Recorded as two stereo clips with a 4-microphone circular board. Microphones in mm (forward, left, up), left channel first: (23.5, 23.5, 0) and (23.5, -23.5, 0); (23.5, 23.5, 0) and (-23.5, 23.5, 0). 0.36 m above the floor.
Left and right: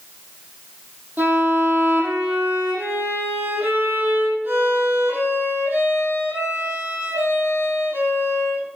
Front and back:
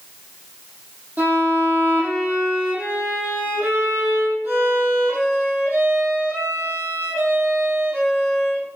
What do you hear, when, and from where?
1.2 s a violin: 140° right, 7.5 m